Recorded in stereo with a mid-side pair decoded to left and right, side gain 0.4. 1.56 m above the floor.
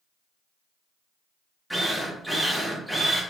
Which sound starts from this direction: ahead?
A drill, at 1.7 s.